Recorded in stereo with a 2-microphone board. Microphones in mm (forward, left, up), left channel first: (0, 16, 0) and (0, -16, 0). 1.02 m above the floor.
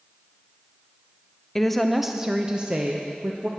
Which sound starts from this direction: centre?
A woman speaking, at 1.6 s.